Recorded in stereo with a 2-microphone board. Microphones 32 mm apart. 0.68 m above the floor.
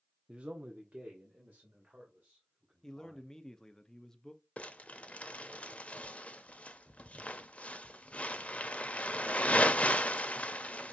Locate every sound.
0.3 s a man speaking: 30° right (ahead or behind), 0.6 m; by 3.3 s 45° right (ahead or behind), 3 m
2.8 s a man speaking: 20° left (ahead or behind), 0.7 m
4.6 s crumpling: 40° left (ahead or behind), 0.6 m